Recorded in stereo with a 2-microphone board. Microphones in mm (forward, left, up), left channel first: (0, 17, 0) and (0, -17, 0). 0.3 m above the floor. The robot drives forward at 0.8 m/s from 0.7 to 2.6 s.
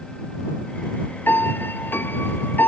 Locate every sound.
1.3 s a piano: 80° left; by 2.7 s 70° left (ahead or behind)